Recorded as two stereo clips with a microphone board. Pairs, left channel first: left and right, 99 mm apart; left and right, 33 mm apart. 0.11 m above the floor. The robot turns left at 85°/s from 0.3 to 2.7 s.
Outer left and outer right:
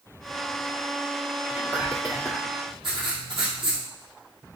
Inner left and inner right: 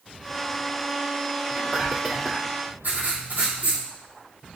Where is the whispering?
15° right (ahead or behind), 1.3 m.